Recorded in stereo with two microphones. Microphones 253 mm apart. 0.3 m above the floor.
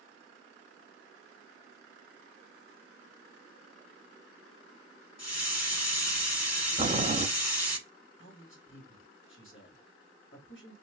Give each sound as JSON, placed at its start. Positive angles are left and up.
{"t": 5.2, "sound": "a hiss", "side_deg": 75, "distance_m": 1.3}
{"t": 6.8, "sound": "boiling", "side_deg": -25, "distance_m": 0.8}
{"t": 8.2, "sound": "a man speaking", "side_deg": 50, "distance_m": 2.0}